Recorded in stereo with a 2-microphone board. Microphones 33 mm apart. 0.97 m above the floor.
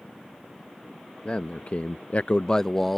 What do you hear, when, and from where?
1.2 s a man speaking: 40° left (ahead or behind); by 3.0 s 5° left (ahead or behind)